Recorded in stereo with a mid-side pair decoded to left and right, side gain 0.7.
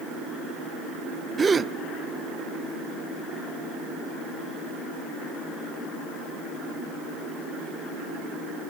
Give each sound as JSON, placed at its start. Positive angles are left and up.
{"t": 1.4, "sound": "a gasp", "azimuth_deg": -25, "distance_m": 0.7}